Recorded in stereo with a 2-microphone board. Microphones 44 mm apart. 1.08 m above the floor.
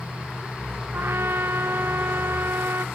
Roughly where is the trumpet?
Right.